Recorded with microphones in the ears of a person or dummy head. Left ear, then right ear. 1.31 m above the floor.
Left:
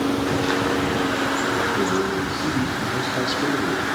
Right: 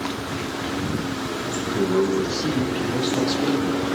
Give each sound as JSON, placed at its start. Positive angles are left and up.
{"t": 1.8, "sound": "a man speaking", "side_deg": -80, "distance_m": 1.0}